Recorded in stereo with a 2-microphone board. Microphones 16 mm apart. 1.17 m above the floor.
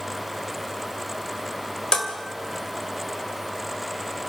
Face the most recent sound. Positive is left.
turn(degrees=65)  # may be behind; listen again after turning